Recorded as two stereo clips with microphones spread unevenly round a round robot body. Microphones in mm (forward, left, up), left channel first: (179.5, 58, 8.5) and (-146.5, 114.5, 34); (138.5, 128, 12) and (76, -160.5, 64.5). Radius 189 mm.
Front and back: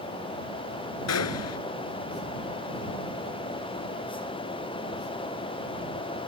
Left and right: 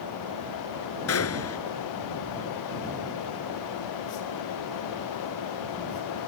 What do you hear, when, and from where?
1.1 s a gunshot: 35° left